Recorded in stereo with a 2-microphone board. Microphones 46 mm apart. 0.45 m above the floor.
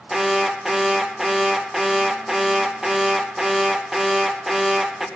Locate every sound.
0.1 s an alarm: 5° right (ahead or behind), 1.3 m